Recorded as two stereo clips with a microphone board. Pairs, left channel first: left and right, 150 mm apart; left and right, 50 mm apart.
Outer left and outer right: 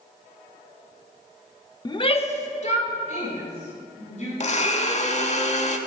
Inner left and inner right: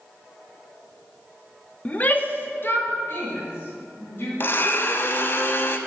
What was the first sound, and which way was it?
A shout, 25° left (ahead or behind).